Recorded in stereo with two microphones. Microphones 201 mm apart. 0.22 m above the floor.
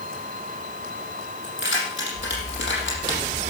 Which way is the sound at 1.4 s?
70° left (ahead or behind).